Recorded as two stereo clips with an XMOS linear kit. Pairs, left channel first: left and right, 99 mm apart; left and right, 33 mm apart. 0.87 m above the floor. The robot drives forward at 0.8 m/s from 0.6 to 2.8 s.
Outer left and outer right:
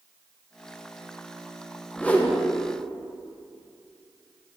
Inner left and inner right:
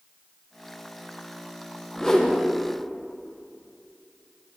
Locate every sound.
2.0 s a whoosh: 15° left (ahead or behind), 0.6 m; by 2.4 s 10° left (ahead or behind), 0.8 m